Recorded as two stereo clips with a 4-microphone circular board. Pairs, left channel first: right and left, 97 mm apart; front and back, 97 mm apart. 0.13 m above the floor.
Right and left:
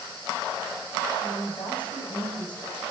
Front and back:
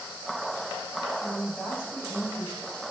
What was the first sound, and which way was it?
A woman speaking, 85° right.